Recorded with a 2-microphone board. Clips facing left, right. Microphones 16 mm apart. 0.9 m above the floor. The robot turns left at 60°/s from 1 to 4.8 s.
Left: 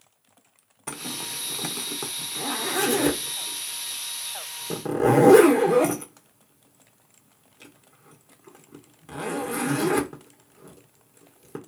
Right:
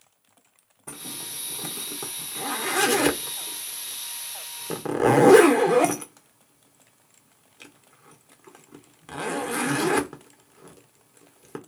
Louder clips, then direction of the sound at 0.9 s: Left 5 dB; 75° left (ahead or behind).